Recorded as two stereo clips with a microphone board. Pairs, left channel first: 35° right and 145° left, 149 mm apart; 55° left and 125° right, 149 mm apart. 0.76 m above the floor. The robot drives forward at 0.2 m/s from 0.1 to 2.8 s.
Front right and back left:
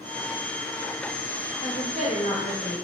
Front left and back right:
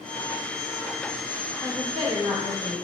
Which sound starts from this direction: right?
A woman speaking, at 1.6 s.